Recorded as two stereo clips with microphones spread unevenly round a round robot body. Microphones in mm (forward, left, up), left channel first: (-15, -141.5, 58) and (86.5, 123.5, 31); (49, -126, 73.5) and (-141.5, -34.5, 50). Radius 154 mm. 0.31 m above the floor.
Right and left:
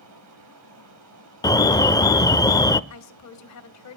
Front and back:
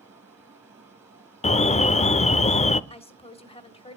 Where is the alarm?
40° right, 0.7 m.